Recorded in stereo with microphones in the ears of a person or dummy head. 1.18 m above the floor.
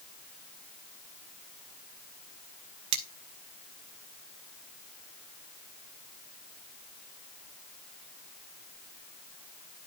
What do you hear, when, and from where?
2.9 s cutlery clinking: 30° right (ahead or behind), 0.7 m